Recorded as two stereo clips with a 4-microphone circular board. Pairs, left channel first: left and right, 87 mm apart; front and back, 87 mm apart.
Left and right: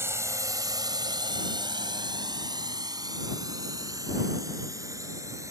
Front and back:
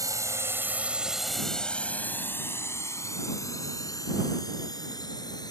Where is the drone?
145° right; by 5.5 s 40° right.